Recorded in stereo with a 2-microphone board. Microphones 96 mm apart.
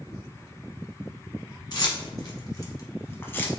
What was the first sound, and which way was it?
Keys jangling, 45° left (ahead or behind).